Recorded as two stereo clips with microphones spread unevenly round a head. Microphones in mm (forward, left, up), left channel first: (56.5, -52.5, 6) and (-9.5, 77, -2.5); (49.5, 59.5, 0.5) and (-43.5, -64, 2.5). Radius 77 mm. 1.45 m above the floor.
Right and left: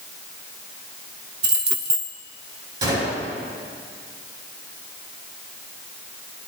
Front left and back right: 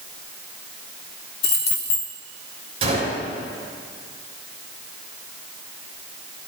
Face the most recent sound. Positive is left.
turn(degrees=180)